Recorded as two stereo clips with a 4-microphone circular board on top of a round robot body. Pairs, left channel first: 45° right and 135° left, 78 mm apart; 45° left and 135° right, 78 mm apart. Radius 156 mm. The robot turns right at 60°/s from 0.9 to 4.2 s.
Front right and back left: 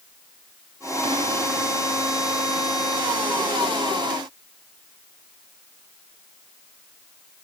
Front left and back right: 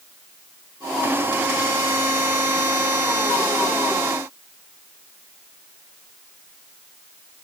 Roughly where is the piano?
No piano in this recording.